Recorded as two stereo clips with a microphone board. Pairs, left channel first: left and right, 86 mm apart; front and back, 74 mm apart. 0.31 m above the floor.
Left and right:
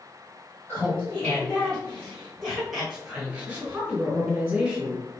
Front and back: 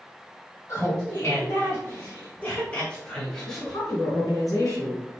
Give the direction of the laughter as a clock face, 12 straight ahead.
11 o'clock.